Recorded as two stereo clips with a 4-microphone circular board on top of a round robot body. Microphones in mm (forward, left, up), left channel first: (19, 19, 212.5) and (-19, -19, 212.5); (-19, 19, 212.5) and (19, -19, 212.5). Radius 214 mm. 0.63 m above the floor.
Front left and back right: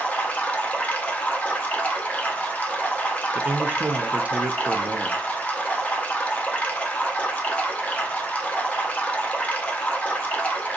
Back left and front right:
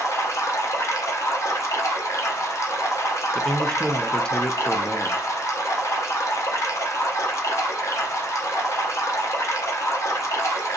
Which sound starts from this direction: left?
Running water, at 0.0 s.